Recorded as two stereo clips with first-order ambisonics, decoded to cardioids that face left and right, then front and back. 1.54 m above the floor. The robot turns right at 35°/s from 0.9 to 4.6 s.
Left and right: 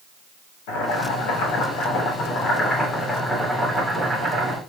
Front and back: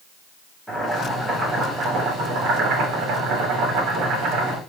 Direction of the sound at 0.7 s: 90° left.